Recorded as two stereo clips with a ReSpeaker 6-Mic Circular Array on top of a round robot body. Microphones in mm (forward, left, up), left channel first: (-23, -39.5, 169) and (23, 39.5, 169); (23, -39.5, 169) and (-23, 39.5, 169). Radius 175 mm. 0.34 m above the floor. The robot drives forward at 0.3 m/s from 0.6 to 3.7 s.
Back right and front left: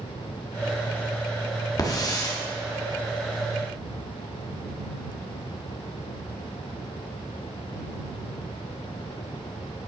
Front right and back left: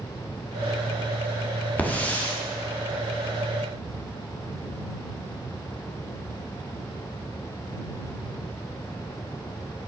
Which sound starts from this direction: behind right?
A hiss, at 1.8 s.